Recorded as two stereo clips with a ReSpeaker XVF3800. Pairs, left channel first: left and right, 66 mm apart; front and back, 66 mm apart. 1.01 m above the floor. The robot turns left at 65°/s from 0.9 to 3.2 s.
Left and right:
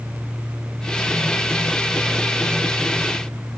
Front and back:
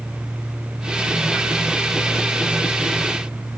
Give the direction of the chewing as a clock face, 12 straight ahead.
I don't hear chewing.